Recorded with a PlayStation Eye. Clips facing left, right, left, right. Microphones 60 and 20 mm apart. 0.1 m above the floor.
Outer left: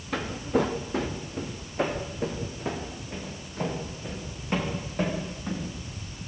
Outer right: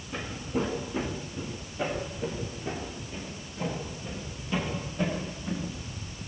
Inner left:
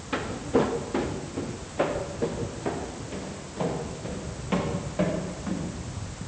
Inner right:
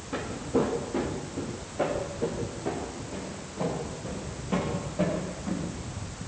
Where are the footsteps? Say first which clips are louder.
Outer left 6 dB, inner left 3 dB; 75° left (ahead or behind), 3 m; by 6.2 s 50° left (ahead or behind), 10 m.